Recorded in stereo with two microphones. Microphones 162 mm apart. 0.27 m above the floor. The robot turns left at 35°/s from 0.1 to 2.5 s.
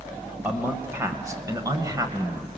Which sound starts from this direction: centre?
A man speaking, at 0.4 s.